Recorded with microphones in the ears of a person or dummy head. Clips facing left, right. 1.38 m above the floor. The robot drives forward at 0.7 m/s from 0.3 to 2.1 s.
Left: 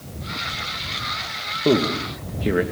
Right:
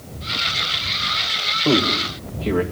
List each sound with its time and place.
1.6 s a man speaking: 20° left (ahead or behind), 1.9 m; by 2.6 s 15° left (ahead or behind), 2 m